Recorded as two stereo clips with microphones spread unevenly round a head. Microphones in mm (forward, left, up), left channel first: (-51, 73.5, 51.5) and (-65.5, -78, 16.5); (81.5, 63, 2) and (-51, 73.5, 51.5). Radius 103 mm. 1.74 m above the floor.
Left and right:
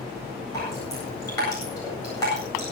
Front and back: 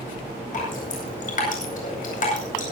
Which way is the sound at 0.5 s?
15° left.